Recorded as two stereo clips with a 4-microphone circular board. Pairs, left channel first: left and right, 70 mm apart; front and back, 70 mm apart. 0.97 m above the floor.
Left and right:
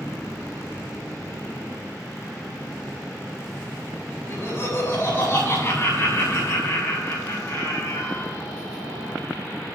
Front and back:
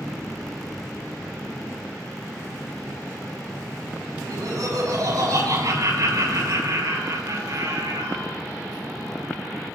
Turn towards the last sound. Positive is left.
turn(degrees=145)